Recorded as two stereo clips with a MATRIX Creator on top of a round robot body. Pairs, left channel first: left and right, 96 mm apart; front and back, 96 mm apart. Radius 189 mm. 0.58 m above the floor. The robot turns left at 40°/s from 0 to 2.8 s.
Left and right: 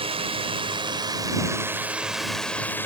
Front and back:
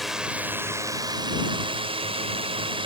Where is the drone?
90° right; by 2.9 s 160° left.